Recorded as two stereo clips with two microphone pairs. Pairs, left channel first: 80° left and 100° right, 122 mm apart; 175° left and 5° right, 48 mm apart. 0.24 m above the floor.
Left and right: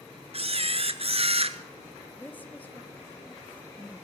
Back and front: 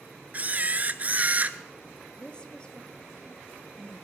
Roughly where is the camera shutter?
Ahead right.